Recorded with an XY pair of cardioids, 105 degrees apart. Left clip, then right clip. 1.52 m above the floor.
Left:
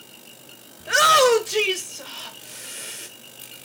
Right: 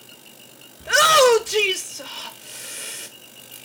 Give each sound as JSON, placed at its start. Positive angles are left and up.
{"t": 0.8, "sound": "a shout", "azimuth_deg": -15, "distance_m": 1.2}